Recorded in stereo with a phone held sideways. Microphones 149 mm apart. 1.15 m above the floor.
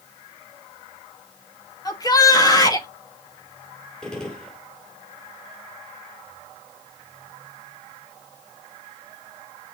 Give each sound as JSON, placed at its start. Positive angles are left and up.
{"t": 1.9, "sound": "a shout", "side_deg": 25, "distance_m": 2.0}
{"t": 4.0, "sound": "a gunshot", "side_deg": 5, "distance_m": 2.0}